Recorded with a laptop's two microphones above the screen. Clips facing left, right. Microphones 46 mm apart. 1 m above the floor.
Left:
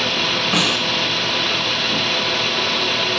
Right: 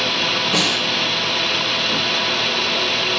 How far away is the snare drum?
About 6 m.